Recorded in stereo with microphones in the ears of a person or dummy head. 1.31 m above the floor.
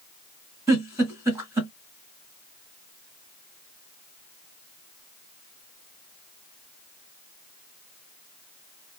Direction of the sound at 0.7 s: 20° right (ahead or behind).